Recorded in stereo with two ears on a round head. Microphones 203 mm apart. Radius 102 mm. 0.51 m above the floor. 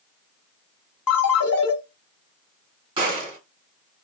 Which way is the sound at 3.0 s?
25° right (ahead or behind).